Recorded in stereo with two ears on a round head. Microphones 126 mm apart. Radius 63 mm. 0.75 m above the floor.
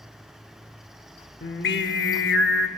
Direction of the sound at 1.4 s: 80° left.